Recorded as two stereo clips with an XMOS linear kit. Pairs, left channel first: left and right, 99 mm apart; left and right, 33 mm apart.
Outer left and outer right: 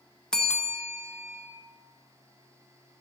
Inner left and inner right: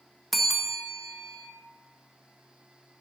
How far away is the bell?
About 1.4 m.